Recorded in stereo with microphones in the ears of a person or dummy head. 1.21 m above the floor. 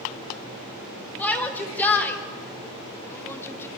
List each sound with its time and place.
1.2 s a shout: 10° left (ahead or behind), 4.5 m; by 3.7 s 15° left (ahead or behind), 2.5 m